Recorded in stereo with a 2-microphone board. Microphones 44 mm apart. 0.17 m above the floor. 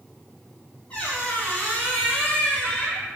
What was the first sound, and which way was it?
A squeak, 20° left (ahead or behind).